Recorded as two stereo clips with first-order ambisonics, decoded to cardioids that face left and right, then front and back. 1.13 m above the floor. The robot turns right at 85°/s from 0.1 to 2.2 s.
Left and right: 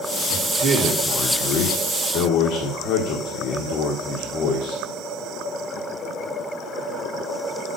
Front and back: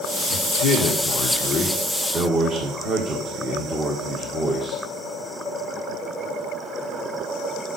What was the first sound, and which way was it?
A man speaking, 40° right.